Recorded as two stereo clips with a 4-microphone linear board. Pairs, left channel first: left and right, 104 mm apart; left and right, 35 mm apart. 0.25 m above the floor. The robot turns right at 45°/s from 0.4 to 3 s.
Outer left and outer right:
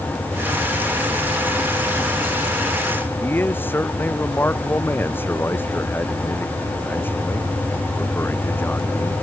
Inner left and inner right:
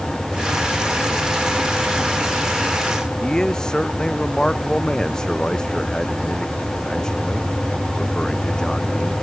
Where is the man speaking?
20° left (ahead or behind).